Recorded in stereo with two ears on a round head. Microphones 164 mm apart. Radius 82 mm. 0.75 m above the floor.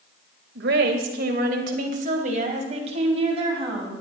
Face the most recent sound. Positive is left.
turn(degrees=-30)  # may be behind; listen again after turning